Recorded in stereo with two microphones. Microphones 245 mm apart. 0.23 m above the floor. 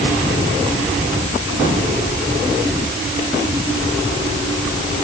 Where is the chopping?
No chopping in this recording.